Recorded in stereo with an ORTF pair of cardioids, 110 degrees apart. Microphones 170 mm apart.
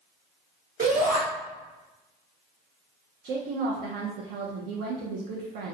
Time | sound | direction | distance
0.8 | a shout | 55° right | 1.2 m
3.2 | a woman speaking | 70° right | 0.6 m